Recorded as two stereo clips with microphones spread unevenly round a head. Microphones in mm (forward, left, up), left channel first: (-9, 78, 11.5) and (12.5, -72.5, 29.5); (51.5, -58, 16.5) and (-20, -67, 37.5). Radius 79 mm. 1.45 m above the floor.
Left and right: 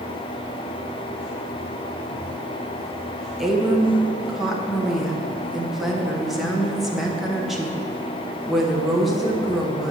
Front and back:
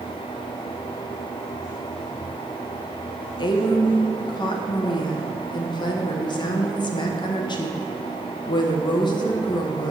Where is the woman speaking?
5° left, 1.1 m.